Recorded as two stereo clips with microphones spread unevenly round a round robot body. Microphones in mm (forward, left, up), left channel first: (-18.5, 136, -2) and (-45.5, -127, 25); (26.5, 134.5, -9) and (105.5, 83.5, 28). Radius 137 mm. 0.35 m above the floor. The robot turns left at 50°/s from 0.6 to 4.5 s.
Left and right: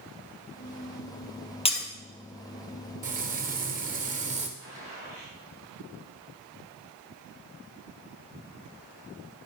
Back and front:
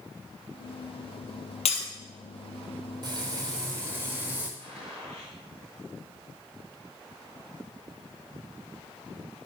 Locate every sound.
1.6 s breaking glass: 155° left, 1.8 m; by 1.9 s 145° left, 1.8 m
3.0 s frying: 70° right, 1.1 m; by 4.5 s 140° right, 1.1 m
4.6 s a gunshot: 75° right, 4.5 m